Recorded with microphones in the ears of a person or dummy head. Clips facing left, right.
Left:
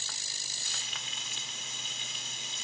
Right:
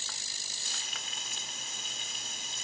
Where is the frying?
40° right (ahead or behind).